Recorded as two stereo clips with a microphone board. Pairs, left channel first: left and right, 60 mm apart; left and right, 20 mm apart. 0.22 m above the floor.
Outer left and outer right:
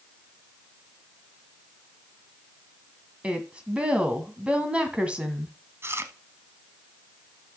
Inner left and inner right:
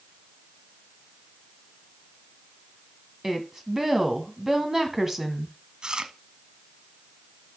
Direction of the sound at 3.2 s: 20° right (ahead or behind).